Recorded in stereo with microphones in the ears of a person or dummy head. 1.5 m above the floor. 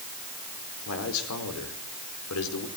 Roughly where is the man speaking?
Left.